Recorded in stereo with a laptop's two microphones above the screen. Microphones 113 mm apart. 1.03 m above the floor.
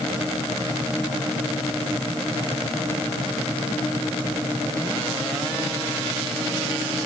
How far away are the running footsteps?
I don't hear running footsteps.